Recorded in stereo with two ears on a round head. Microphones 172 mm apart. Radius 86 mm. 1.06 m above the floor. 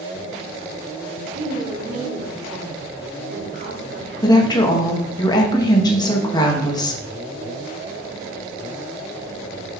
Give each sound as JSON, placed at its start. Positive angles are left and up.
{"t": 1.4, "sound": "a woman speaking", "side_deg": -50, "distance_m": 3.0}
{"t": 4.2, "sound": "a woman speaking", "side_deg": 20, "distance_m": 1.0}